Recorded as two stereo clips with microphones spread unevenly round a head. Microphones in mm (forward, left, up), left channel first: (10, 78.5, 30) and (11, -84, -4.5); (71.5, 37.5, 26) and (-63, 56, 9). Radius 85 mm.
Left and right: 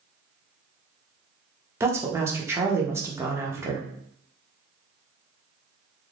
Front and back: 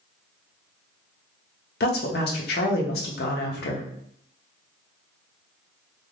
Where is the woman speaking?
15° right, 0.7 m.